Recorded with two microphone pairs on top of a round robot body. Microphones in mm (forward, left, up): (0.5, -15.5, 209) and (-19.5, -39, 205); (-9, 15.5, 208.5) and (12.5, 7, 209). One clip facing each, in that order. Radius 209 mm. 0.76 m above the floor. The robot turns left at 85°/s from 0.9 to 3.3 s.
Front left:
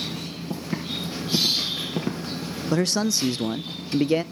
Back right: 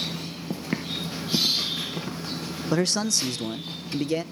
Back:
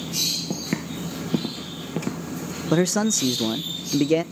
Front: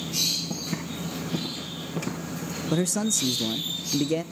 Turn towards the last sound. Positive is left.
turn(degrees=125)